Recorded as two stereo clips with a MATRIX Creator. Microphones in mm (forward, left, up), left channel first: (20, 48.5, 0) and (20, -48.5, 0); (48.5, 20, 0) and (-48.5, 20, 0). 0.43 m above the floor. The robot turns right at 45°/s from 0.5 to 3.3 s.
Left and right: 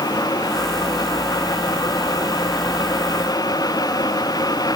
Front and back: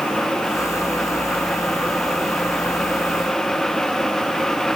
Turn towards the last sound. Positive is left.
No sound to turn to.